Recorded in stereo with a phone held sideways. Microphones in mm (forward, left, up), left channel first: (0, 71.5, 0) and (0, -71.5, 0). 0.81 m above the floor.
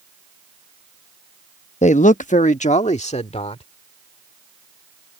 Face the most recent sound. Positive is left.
turn(degrees=45)  # may be behind; listen again after turning